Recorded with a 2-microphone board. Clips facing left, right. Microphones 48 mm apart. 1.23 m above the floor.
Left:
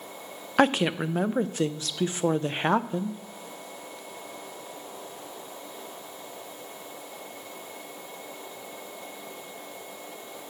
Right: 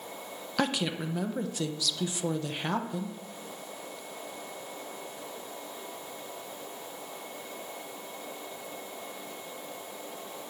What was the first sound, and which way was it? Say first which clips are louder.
A woman speaking: left 8 dB; 40° left (ahead or behind).